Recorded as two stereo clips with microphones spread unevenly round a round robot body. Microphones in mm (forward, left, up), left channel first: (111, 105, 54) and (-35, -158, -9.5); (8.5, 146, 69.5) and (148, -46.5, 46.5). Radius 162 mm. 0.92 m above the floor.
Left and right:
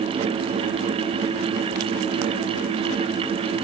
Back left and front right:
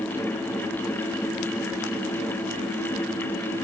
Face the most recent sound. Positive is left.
No sound to turn to.